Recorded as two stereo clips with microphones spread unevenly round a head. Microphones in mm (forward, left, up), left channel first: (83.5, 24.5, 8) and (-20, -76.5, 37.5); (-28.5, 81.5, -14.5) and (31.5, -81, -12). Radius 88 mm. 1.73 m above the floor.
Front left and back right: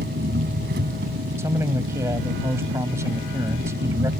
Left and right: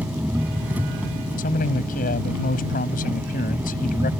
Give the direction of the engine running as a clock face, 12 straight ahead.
5 o'clock.